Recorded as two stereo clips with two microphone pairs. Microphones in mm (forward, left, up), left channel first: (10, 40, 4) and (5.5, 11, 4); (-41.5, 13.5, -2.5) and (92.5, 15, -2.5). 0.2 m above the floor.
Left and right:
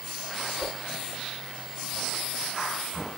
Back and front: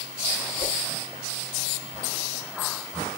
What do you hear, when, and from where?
0.6 s a whoosh: 5° left, 3.5 m